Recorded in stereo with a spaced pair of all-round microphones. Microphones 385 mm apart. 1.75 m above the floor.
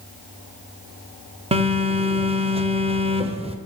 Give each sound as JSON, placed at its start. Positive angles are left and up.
{"t": 1.5, "sound": "a phone buzzing", "side_deg": -15, "distance_m": 0.9}